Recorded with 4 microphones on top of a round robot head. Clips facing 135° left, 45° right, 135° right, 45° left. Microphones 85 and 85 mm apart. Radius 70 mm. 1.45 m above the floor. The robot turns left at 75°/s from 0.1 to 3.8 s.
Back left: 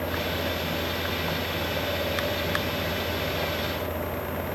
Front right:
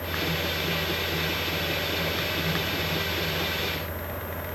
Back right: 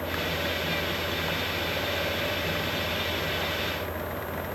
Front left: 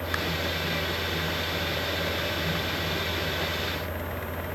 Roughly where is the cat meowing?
No cat meowing in this recording.